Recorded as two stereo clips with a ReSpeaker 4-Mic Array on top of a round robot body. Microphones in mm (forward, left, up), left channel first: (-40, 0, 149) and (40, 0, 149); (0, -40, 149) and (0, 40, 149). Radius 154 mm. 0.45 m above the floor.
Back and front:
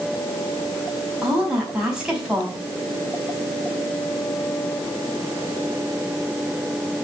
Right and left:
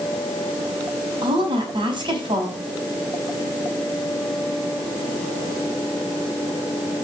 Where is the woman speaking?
80° left, 4.5 m.